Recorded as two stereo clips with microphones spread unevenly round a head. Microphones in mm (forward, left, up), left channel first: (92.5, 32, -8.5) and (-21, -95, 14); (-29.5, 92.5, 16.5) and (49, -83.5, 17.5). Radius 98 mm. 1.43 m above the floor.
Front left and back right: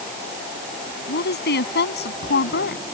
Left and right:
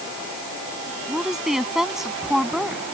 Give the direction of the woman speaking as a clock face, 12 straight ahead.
11 o'clock.